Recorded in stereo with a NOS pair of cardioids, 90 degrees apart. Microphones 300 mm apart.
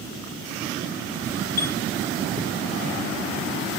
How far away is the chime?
About 0.6 m.